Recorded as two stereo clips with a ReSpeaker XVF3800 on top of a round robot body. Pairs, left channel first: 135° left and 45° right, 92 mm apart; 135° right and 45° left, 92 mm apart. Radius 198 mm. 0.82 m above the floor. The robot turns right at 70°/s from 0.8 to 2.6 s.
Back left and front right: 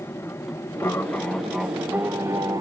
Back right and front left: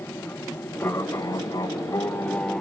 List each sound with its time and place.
0.0 s an aircraft: 175° left; by 2.6 s 60° right